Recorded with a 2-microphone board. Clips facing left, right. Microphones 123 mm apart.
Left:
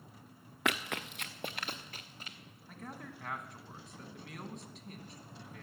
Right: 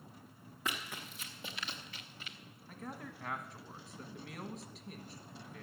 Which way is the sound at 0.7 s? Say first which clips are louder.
Left 7 dB; 75° left (ahead or behind).